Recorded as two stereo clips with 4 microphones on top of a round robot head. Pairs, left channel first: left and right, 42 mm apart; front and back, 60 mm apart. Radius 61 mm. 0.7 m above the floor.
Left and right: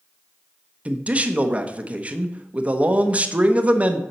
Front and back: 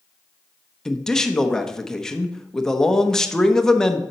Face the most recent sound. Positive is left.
turn(degrees=-75)